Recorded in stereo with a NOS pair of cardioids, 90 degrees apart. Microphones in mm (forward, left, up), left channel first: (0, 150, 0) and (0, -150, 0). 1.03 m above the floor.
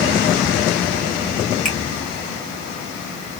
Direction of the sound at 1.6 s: 25° left.